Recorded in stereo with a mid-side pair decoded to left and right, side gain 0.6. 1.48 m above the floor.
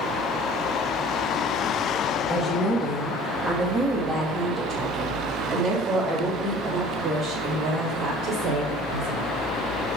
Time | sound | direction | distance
2.3 | a woman speaking | 5° left | 2.5 m